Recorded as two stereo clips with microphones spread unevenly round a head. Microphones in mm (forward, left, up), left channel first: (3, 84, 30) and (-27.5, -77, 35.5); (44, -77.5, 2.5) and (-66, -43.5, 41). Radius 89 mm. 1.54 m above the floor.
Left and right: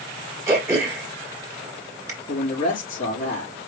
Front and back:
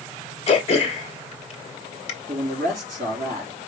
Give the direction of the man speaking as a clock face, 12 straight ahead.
8 o'clock.